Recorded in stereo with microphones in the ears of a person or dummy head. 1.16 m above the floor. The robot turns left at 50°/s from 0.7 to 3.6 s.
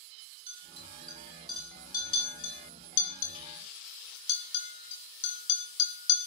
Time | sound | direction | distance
0.5 | a clink | 40° right (ahead or behind) | 1.8 m